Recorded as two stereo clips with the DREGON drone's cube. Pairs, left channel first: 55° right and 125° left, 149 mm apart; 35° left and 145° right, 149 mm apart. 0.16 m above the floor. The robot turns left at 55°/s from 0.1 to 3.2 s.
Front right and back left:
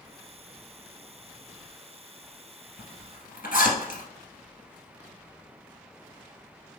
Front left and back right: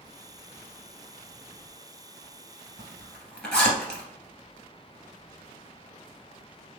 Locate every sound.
2.8 s a zipper: 30° right, 1.7 m; by 4.0 s 50° right, 1.7 m